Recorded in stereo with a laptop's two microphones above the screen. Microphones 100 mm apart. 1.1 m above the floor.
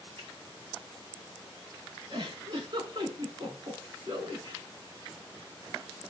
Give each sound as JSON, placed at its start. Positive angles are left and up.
{"t": 0.2, "sound": "a finger snap", "side_deg": -65, "distance_m": 4.0}
{"t": 2.1, "sound": "a giggle", "side_deg": -50, "distance_m": 6.0}